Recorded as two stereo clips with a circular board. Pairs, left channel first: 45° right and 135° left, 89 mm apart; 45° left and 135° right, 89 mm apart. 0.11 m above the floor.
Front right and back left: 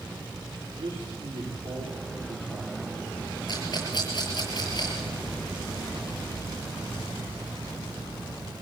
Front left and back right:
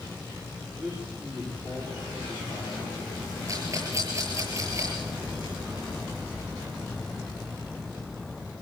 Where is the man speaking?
145° left, 8.5 m.